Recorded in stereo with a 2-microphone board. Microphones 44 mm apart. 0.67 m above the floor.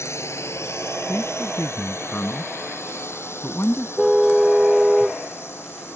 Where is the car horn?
10° right (ahead or behind).